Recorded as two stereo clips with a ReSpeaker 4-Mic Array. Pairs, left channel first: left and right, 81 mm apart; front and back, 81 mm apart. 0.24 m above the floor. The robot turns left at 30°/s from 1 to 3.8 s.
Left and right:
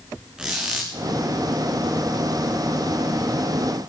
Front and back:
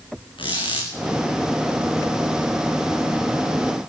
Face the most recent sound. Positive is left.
turn(degrees=-95)